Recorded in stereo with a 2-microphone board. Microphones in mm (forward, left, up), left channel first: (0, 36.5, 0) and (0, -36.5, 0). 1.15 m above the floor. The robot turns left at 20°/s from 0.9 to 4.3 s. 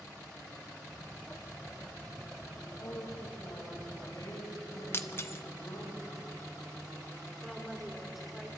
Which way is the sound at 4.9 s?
35° left (ahead or behind).